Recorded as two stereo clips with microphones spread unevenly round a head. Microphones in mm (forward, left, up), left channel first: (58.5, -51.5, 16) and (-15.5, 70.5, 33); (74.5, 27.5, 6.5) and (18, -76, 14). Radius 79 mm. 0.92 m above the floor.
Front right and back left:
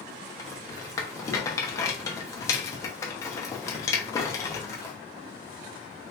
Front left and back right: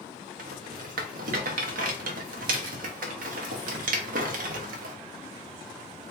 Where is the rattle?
130° right, 0.9 m.